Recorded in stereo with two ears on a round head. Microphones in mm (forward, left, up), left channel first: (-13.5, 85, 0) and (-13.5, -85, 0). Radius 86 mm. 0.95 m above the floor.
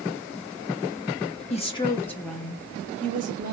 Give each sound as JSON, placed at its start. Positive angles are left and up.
{"t": 1.5, "sound": "a woman speaking", "side_deg": 35, "distance_m": 0.8}